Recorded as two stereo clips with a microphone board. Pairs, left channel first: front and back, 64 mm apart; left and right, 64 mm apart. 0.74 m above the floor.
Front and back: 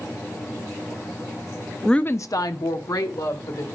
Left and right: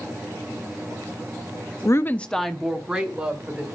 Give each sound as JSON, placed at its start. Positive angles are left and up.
{"t": 1.9, "sound": "a woman speaking", "azimuth_deg": 85, "distance_m": 0.6}